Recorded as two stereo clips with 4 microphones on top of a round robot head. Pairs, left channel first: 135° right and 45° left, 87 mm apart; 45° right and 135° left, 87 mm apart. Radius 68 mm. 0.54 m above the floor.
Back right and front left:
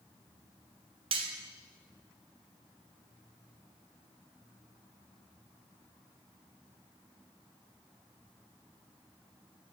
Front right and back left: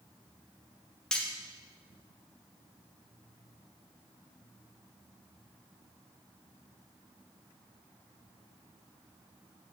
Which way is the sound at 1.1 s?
35° left.